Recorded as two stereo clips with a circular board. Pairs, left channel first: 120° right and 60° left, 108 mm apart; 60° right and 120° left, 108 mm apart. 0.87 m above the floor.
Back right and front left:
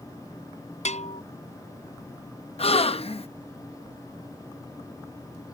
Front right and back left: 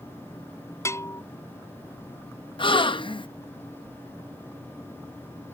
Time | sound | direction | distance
0.8 | a bell | 125° right | ?
2.6 | a gasp | 95° right | ?